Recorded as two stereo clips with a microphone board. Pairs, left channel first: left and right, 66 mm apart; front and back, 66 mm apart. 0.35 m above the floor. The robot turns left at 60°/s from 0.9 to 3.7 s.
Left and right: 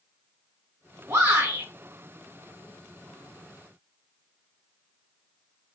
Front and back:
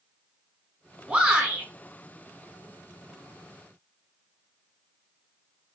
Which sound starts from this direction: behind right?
A shout, at 1.1 s.